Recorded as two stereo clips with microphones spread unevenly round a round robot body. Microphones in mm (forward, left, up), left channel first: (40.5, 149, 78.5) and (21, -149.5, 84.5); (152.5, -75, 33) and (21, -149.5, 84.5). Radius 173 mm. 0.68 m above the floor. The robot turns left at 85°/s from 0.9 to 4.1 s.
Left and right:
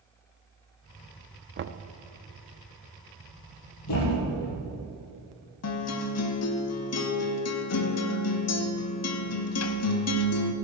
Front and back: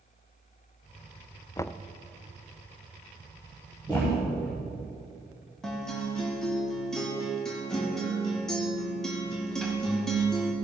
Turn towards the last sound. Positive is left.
turn(degrees=105)